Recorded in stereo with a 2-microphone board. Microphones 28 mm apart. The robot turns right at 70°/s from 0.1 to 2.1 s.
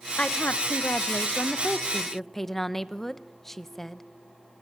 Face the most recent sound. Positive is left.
turn(degrees=170)